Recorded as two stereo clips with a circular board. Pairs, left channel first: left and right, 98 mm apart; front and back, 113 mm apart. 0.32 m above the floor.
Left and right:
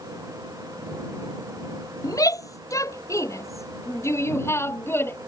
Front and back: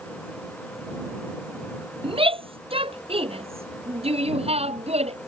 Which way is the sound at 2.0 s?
140° left.